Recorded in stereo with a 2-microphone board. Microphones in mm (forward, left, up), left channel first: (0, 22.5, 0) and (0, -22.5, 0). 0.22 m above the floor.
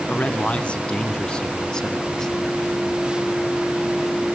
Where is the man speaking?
30° left (ahead or behind), 2 m; by 2.8 s 10° left (ahead or behind), 3 m.